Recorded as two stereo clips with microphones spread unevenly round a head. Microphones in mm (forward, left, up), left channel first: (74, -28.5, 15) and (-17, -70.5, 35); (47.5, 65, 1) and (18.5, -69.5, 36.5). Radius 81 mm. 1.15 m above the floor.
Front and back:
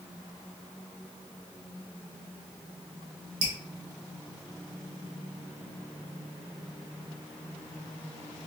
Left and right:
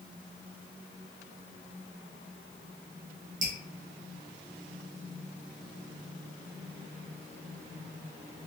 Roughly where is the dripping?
Behind right.